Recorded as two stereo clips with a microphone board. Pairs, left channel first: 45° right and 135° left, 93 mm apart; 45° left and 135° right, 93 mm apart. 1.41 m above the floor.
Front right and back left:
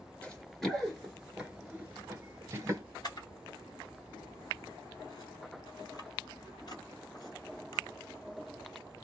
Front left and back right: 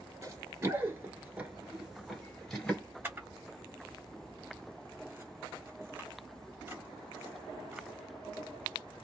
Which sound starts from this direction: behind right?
Running footsteps, at 0.2 s.